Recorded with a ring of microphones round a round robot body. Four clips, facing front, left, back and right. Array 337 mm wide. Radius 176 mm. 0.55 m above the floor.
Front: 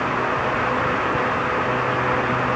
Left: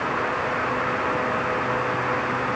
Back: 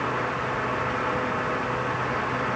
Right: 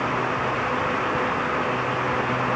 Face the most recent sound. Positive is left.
No sound to turn to.